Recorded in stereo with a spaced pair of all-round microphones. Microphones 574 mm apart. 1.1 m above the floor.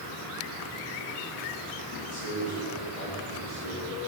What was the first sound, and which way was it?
A man speaking, 55° left (ahead or behind).